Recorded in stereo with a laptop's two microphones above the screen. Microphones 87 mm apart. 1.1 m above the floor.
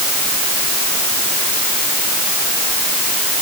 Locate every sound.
Only background noise.